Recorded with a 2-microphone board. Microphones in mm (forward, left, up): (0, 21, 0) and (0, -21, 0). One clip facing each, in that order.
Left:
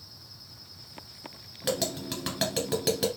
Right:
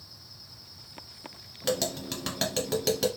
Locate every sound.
1.6 s tapping: 5° left (ahead or behind), 1.4 m